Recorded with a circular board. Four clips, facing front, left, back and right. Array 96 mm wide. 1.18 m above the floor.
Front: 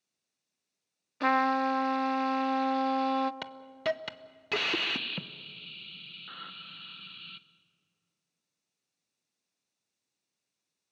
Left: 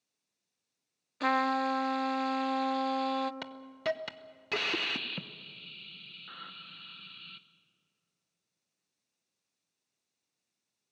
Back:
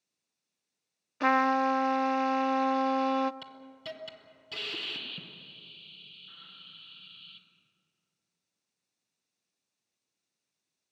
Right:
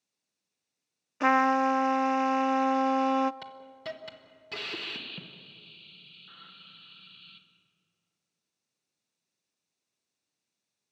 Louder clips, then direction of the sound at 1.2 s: Right 5 dB, back 1 dB; 105° right.